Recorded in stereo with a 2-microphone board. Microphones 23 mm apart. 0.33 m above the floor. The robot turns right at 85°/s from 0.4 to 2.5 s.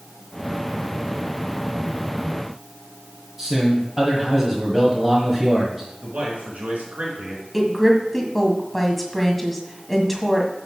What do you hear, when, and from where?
3.4 s a man speaking: 20° right (ahead or behind), 1.7 m
6.0 s a man speaking: 75° right (ahead or behind), 4.5 m
7.5 s a woman speaking: 5° left (ahead or behind), 1.8 m